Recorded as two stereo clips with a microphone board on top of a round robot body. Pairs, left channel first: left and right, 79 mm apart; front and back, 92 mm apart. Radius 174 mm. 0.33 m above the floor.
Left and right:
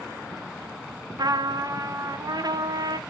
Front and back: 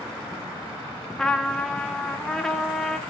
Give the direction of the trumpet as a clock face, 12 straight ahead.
3 o'clock.